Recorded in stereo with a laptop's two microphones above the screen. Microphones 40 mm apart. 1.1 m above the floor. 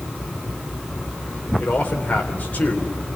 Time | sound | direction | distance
1.6 | a man speaking | 40° left (ahead or behind) | 3 m